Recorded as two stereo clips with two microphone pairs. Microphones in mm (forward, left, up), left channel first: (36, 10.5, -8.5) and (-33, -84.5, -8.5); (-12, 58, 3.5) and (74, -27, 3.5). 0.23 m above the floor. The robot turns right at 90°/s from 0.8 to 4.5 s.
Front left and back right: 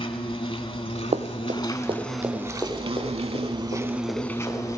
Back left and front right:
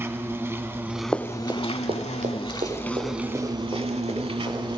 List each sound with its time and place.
0.0 s an insect: 25° left, 0.7 m; by 4.8 s 5° right, 0.7 m
1.1 s running footsteps: 145° right, 0.9 m; by 4.8 s 145° left, 6 m